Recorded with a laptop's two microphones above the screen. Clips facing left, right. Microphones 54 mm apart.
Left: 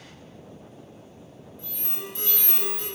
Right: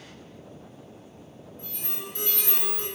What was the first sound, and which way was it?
An alarm, 50° right (ahead or behind).